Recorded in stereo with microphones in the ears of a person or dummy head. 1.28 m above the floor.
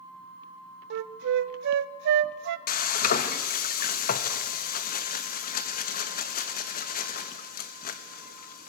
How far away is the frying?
About 1.1 m.